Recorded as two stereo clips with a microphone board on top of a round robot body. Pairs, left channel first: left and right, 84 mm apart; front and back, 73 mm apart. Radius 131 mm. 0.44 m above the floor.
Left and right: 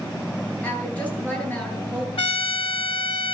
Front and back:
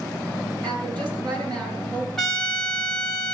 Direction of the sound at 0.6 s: 165° left.